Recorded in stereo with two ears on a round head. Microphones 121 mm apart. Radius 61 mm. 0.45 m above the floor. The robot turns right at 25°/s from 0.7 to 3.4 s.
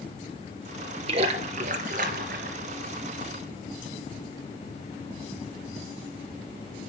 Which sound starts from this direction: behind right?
A splash, at 1.1 s.